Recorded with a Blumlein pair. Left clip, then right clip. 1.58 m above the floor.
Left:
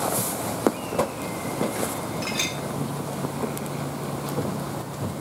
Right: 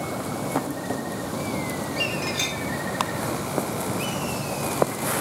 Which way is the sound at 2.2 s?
5° left.